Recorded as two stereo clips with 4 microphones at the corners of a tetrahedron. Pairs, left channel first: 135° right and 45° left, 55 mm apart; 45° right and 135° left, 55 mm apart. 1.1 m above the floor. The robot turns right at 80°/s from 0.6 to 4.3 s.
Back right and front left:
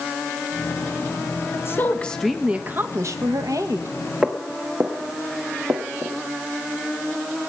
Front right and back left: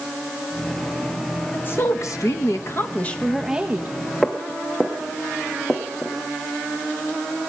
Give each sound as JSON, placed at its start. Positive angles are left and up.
{"t": 1.5, "sound": "a woman speaking", "azimuth_deg": -105, "distance_m": 1.2}
{"t": 4.2, "sound": "footsteps", "azimuth_deg": 30, "distance_m": 1.1}